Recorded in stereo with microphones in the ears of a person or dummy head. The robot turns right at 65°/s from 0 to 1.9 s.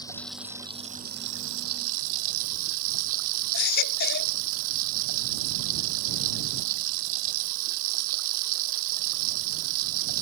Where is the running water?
160° left; by 10.2 s 75° right.